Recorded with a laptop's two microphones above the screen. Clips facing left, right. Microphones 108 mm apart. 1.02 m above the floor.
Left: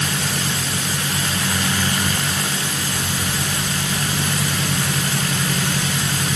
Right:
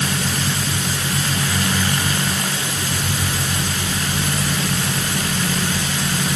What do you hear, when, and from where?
Only background noise.